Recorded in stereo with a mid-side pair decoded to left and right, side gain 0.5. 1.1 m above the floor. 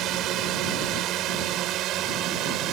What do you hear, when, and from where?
0.0 s a drone: 70° right